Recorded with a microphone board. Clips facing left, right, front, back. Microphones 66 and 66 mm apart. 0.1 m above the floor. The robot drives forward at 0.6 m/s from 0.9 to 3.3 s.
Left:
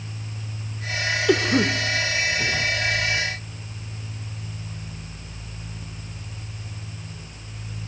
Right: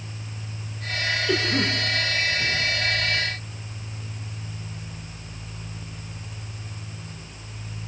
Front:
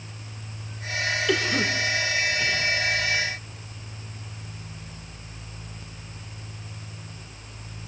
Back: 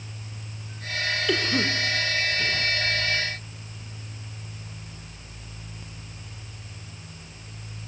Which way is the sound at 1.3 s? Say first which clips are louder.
Left 6 dB, even; 90° left.